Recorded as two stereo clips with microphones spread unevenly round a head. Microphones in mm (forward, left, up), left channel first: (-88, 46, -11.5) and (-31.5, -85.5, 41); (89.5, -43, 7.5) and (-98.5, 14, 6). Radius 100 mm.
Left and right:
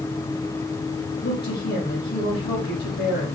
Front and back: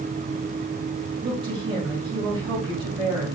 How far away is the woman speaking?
About 4 m.